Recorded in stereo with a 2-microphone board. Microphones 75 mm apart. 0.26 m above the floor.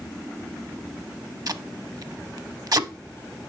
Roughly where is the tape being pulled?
Right.